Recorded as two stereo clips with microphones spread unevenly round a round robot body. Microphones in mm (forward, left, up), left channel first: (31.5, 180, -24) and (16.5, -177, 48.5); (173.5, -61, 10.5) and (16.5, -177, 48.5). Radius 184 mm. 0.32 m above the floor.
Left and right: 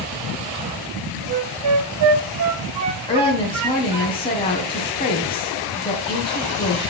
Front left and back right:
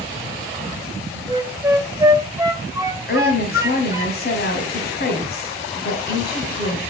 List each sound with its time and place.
1.3 s a flute: 65° right, 1.6 m
3.1 s a woman speaking: 20° left, 2 m